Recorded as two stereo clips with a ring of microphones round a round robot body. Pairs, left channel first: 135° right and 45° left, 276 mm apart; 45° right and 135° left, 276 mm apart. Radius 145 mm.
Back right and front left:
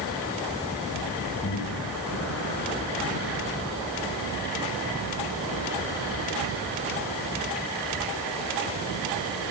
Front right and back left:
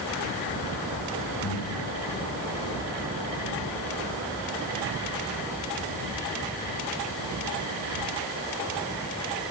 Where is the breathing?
85° right, 4.5 m.